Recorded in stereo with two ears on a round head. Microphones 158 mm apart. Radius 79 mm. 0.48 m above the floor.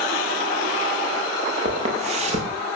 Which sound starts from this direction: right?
Footsteps, at 1.6 s.